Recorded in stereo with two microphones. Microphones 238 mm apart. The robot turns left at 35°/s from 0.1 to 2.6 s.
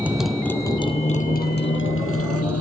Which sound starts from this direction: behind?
A motorcycle, at 0.0 s.